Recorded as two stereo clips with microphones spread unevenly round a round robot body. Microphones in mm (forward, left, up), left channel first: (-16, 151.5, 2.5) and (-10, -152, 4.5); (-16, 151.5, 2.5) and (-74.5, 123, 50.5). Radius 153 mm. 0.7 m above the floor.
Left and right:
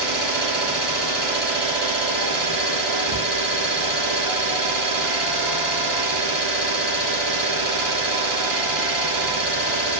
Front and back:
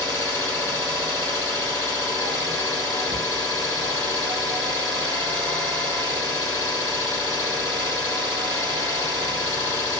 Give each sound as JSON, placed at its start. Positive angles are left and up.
{"t": 0.0, "sound": "an engine running", "azimuth_deg": -90, "distance_m": 1.1}